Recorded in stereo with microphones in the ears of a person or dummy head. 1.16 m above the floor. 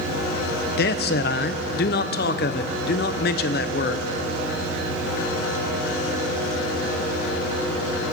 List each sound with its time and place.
0.8 s a man speaking: 45° left (ahead or behind), 0.5 m